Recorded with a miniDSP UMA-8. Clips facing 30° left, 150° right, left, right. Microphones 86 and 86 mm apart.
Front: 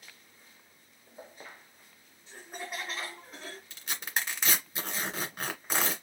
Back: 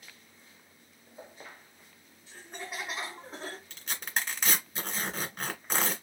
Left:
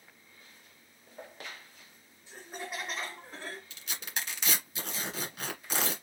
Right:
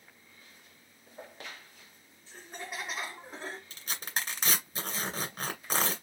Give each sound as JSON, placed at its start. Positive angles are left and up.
{"t": 2.3, "sound": "laughter", "azimuth_deg": 40, "distance_m": 1.1}
{"t": 3.7, "sound": "tearing paper", "azimuth_deg": -55, "distance_m": 2.0}